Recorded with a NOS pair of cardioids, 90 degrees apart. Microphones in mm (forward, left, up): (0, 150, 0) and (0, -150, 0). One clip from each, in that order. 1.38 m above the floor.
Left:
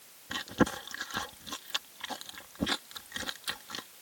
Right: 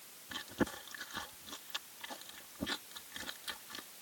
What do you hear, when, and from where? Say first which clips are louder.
0.3 s chewing: left 8 dB; 55° left